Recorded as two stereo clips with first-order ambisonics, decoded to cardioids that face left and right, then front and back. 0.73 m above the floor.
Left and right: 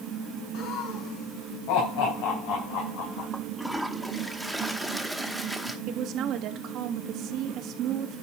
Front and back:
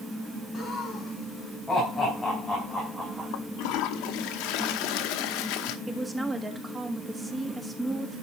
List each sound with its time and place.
0.5 s laughter: 65° left, 6.5 m; by 3.3 s 100° left, 3.5 m
3.3 s a toilet flushing: straight ahead, 1.0 m
5.9 s a woman speaking: 100° right, 1.3 m